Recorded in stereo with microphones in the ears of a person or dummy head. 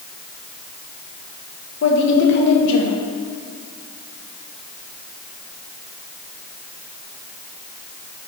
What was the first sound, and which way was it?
A woman speaking, 75° left (ahead or behind).